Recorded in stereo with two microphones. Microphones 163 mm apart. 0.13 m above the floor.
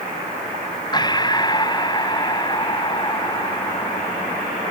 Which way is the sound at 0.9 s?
25° left (ahead or behind).